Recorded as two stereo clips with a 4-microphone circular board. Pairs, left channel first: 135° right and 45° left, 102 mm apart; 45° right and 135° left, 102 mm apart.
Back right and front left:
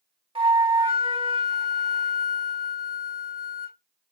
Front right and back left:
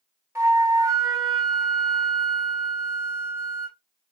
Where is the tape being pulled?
No tape being pulled in this recording.